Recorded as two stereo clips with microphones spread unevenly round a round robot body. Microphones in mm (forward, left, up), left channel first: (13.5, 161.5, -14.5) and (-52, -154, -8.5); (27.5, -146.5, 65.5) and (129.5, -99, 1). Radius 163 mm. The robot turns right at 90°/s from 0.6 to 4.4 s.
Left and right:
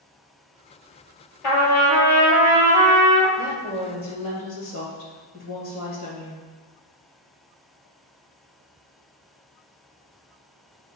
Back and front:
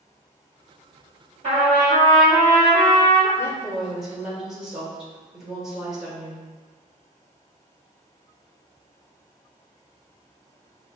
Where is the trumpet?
85° left, 1.9 m; by 3.3 s 110° right, 1.9 m.